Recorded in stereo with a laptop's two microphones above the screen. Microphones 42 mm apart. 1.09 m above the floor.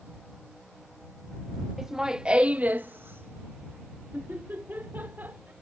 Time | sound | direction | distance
1.8 | laughter | 5° right (ahead or behind) | ?